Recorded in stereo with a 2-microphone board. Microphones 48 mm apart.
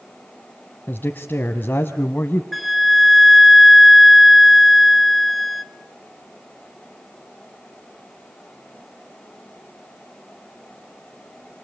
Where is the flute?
Centre (ahead or behind), 1.1 m.